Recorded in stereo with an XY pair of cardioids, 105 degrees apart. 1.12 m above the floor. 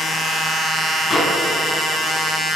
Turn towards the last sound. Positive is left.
turn(degrees=30)